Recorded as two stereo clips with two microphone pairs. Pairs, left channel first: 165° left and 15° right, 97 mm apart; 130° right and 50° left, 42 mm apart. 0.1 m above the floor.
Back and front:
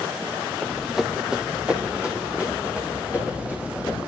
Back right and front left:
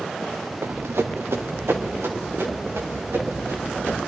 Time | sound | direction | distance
0.6 | running footsteps | 75° left | 0.6 m